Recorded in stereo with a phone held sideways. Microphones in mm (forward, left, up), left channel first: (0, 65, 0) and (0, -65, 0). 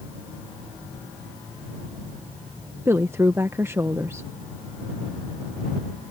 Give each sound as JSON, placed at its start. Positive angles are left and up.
{"t": 2.9, "sound": "a woman speaking", "side_deg": -20}